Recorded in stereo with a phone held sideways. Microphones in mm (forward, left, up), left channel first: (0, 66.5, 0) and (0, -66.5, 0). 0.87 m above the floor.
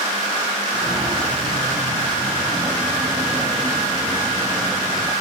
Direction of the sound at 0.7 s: 30° right (ahead or behind).